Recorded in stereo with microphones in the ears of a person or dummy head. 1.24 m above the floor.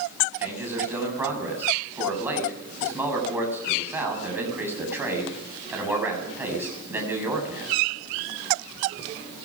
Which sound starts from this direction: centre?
A man speaking, at 0.4 s.